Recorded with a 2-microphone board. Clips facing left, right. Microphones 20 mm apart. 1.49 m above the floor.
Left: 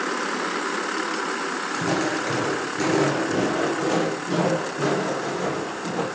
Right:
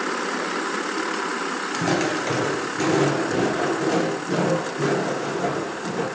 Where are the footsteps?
30° right (ahead or behind), 1.7 m; by 6.0 s 30° left (ahead or behind), 5.5 m.